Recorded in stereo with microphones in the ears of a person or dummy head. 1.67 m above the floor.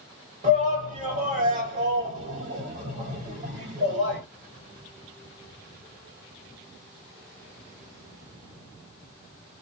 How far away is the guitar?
No guitar in this recording.